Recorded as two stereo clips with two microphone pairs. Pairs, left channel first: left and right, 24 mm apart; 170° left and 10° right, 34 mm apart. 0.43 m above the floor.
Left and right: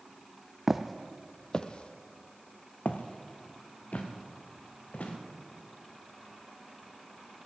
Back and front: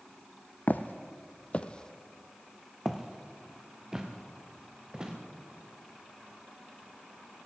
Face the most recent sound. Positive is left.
turn(degrees=65)